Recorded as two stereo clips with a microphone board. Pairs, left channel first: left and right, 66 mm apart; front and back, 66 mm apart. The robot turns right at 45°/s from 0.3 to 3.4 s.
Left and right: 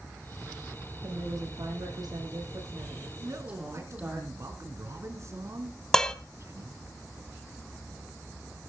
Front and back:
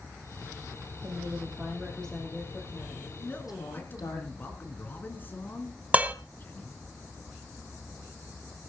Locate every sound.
1.0 s a woman speaking: 130° right, 8 m; by 4.2 s 20° right, 8 m
3.2 s a man speaking: 65° right, 3 m; by 6.8 s 55° right, 3 m
5.9 s dishes clattering: 155° left, 0.8 m